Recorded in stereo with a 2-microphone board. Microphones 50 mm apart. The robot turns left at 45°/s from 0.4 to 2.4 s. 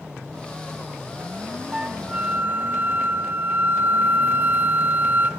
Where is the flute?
10° right, 0.8 m; by 5.3 s 40° right, 0.8 m.